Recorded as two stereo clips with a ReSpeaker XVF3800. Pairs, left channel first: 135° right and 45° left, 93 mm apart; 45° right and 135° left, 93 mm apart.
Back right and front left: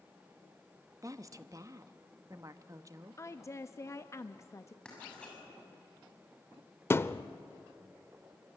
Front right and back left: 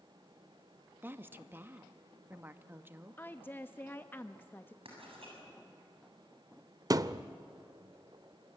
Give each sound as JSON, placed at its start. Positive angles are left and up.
{"t": 1.0, "sound": "a woman speaking", "azimuth_deg": 75, "distance_m": 0.9}
{"t": 3.2, "sound": "a woman speaking", "azimuth_deg": -100, "distance_m": 0.6}
{"t": 4.8, "sound": "writing", "azimuth_deg": 145, "distance_m": 7.0}
{"t": 6.9, "sound": "a thud", "azimuth_deg": 170, "distance_m": 0.5}